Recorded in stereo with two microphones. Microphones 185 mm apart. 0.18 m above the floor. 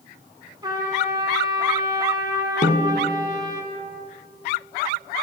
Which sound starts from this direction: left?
A snare drum, at 2.6 s.